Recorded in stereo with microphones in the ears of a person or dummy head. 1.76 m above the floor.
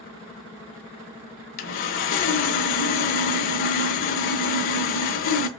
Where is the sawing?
50° left (ahead or behind), 0.5 m.